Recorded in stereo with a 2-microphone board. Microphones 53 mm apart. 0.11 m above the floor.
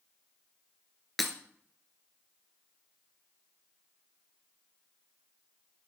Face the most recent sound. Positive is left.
turn(degrees=0)  # may be behind; listen again after turning